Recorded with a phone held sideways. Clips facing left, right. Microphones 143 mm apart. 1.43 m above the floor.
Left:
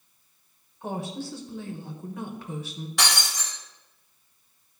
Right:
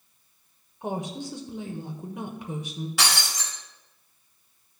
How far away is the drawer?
I don't hear a drawer.